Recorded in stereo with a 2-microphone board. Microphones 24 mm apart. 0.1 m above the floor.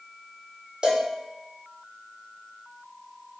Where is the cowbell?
35° right (ahead or behind), 1.1 m.